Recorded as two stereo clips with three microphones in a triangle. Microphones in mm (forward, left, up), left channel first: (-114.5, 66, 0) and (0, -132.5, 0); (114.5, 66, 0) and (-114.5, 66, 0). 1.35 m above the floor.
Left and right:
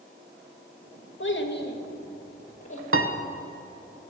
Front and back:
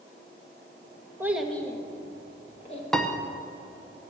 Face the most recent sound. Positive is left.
turn(degrees=-90)